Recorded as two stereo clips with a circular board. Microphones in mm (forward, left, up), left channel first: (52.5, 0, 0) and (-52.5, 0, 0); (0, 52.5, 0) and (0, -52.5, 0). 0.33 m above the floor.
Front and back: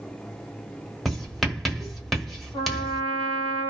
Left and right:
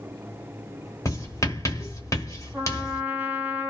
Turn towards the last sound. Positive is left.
turn(degrees=-15)